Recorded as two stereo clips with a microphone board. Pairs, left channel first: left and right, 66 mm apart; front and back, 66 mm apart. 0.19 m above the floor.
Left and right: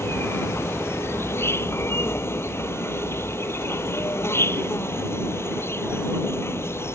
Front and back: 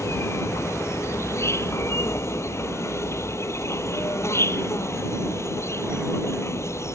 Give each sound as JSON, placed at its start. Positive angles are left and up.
{"t": 0.0, "sound": "an insect", "azimuth_deg": 40}